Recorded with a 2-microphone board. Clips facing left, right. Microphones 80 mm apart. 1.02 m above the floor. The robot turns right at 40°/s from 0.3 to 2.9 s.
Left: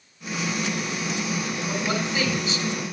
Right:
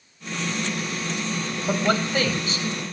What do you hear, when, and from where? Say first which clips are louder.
1.7 s a man speaking: right 6 dB; 75° right (ahead or behind), 6.5 m; by 2.6 s 40° right (ahead or behind), 6.5 m